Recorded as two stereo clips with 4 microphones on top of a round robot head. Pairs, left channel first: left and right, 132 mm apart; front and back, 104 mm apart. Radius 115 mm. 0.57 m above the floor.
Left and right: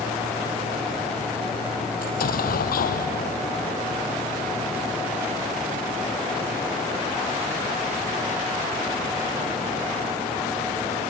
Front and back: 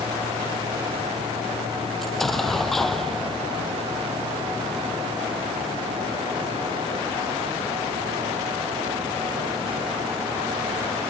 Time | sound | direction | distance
2.0 | an explosion | 90° left | ?